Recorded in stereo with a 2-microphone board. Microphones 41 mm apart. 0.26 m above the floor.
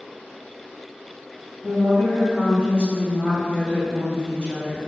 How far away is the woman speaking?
About 1.4 m.